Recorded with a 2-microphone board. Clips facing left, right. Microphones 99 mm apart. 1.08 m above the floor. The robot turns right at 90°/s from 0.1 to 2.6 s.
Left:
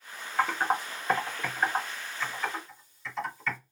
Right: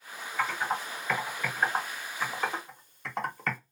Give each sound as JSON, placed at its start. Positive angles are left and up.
{"t": 0.4, "sound": "typing on a keyboard", "side_deg": 50, "distance_m": 1.0}